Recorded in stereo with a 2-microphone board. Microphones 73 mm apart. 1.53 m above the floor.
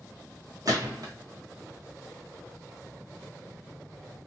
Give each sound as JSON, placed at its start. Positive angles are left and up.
{"t": 0.7, "sound": "a gunshot", "side_deg": -55, "distance_m": 1.0}